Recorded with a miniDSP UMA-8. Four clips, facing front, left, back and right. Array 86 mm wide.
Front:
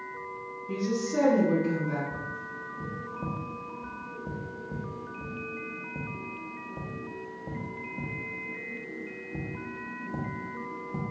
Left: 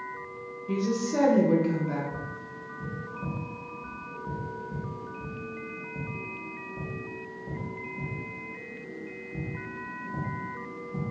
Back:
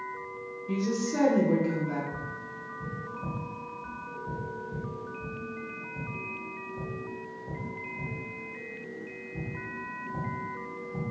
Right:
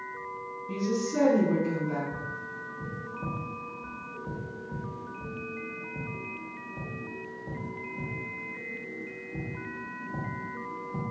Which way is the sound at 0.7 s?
120° left.